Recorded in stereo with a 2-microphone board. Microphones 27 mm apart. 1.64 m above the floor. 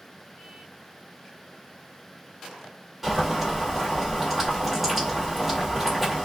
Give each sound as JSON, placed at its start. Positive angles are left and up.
{"t": 3.0, "sound": "boiling", "side_deg": -5, "distance_m": 1.3}